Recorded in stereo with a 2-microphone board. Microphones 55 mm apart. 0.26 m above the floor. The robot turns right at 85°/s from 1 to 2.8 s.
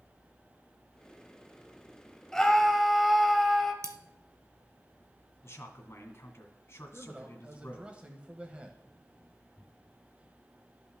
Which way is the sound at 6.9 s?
20° right (ahead or behind).